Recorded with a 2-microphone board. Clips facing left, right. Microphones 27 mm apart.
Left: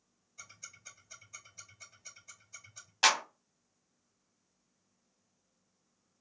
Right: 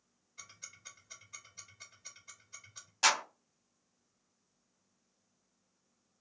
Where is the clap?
25° left (ahead or behind), 0.8 m.